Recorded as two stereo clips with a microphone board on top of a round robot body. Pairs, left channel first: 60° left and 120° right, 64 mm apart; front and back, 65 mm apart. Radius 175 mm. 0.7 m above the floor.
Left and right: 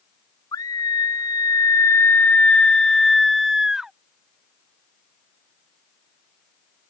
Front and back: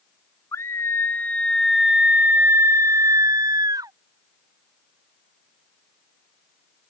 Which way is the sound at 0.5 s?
40° left.